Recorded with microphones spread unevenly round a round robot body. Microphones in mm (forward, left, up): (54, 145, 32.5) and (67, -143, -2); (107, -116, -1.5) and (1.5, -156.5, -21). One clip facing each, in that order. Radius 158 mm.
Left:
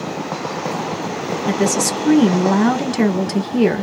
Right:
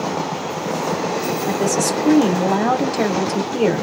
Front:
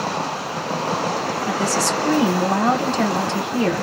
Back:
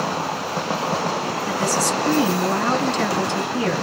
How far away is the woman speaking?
About 1.1 m.